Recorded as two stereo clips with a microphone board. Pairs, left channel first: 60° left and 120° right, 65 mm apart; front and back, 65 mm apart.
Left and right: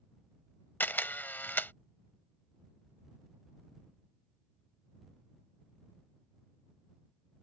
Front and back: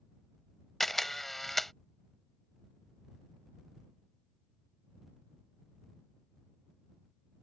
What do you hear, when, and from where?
0.8 s a camera shutter: 85° left